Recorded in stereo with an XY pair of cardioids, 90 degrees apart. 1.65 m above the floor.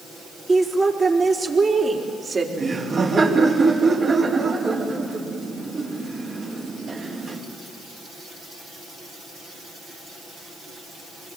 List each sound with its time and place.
0.5 s a woman speaking: 30° right, 3.5 m; by 2.5 s 40° right, 4.5 m
2.6 s laughter: 45° right, 4.5 m